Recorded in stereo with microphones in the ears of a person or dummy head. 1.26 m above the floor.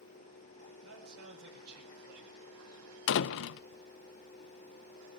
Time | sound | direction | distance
0.8 | a man speaking | 80° right | 7 m
3.1 | a door slam | 65° left (ahead or behind) | 0.6 m